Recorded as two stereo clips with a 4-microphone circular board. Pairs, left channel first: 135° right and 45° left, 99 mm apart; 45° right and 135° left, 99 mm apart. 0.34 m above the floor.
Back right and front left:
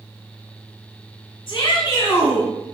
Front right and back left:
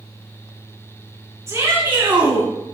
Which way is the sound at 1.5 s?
175° right.